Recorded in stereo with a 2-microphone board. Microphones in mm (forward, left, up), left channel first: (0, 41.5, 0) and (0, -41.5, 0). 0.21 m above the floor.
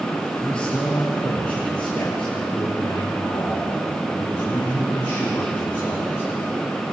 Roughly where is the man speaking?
Centre.